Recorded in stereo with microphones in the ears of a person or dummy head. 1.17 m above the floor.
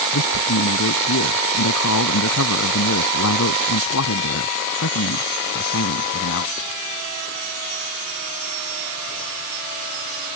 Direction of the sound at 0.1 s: 85° left.